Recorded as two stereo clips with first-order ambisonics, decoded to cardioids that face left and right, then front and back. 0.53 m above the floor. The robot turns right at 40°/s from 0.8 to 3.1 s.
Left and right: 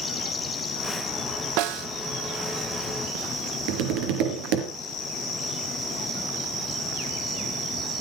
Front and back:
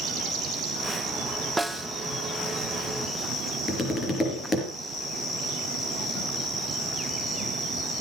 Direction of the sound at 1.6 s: 95° right.